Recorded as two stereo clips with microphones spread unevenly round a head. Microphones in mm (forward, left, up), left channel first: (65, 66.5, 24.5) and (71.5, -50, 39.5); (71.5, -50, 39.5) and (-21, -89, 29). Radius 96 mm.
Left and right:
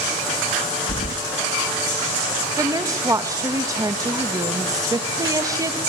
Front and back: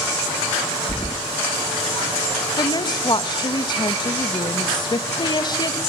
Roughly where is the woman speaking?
Ahead right.